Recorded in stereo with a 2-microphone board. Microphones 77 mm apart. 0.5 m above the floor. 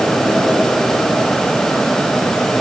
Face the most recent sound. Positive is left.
No sound to turn to.